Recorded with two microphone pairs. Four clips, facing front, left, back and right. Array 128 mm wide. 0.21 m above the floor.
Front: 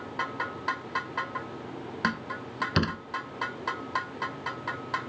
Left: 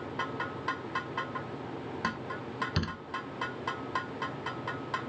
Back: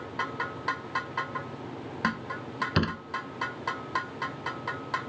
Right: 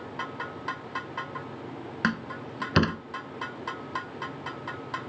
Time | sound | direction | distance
2.0 | a door slam | 90° right | ?